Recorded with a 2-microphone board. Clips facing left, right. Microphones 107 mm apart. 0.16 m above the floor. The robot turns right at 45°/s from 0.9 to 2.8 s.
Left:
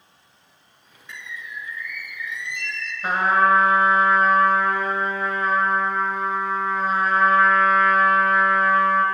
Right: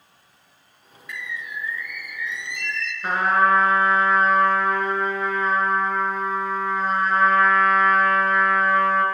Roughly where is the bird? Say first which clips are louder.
Right 3 dB; ahead left.